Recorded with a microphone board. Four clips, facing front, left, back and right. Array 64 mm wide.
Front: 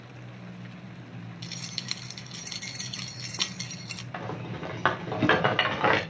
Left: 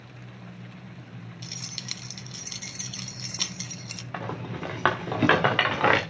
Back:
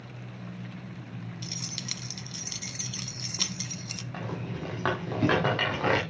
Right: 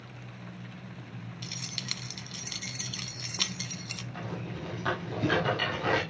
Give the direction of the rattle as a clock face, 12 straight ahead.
10 o'clock.